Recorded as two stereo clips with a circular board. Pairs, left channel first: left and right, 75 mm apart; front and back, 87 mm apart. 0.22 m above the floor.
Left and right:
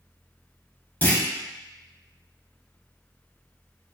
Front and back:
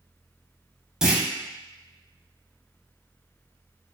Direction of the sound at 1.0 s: 105° left.